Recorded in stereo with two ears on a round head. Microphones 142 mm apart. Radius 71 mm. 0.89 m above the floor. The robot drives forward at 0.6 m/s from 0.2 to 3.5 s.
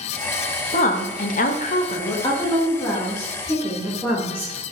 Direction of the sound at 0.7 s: 40° left (ahead or behind).